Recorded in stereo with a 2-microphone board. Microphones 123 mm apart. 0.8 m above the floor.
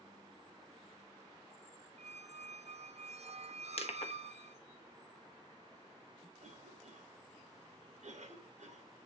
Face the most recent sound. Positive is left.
turn(degrees=-70)  # may be behind; listen again after turning